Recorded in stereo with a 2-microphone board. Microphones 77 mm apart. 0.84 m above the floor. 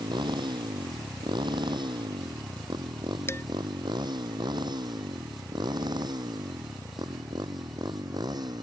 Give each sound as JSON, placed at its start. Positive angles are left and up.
{"t": 0.0, "sound": "a motorcycle", "side_deg": -85}
{"t": 3.3, "sound": "dishes clattering", "side_deg": 35}